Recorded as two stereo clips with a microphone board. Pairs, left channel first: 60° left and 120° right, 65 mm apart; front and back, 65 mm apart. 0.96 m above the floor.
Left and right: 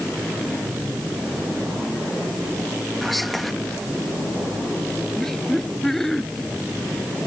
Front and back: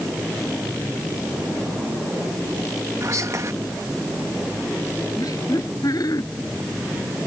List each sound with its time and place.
3.0 s whispering: 150° left
5.2 s laughter: 25° right